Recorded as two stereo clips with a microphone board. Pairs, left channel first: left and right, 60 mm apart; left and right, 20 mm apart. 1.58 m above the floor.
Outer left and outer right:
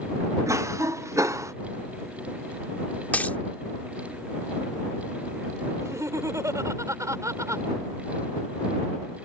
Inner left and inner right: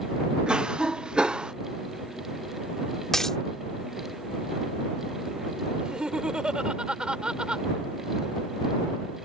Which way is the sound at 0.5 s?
70° right (ahead or behind).